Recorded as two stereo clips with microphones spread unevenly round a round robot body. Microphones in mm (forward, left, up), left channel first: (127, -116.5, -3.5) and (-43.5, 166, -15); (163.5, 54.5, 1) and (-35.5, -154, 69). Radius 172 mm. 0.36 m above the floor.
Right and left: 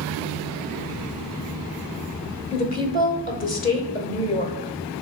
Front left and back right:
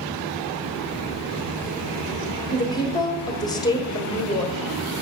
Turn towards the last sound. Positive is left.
turn(degrees=-5)